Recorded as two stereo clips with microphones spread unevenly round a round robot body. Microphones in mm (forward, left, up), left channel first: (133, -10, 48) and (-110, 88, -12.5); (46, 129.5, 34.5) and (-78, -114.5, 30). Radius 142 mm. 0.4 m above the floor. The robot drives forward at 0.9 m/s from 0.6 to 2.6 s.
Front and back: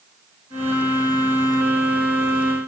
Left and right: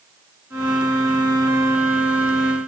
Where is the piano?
I don't hear a piano.